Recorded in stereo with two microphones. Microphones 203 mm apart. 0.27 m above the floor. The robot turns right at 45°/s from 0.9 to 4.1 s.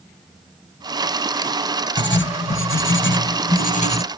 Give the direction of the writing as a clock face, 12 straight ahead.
10 o'clock.